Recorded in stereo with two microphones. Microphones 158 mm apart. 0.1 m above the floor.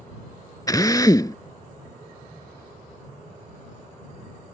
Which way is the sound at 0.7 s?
25° left (ahead or behind).